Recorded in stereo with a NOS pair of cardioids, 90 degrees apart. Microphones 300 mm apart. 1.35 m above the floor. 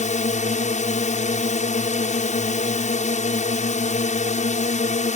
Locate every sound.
0.0 s a drone: 25° left